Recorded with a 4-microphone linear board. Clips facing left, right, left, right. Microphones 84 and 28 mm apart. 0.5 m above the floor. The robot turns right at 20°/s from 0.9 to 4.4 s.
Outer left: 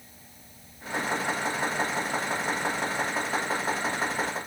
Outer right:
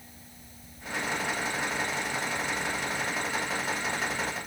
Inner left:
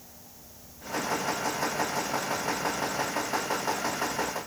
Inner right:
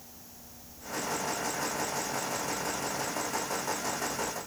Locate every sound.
Only background noise.